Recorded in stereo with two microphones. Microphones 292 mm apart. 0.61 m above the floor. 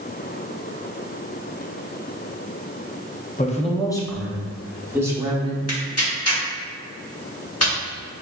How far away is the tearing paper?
About 1.0 m.